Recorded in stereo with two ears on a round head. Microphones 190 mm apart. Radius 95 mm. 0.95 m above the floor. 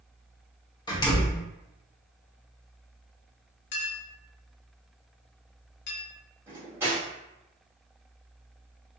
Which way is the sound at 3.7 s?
55° left (ahead or behind).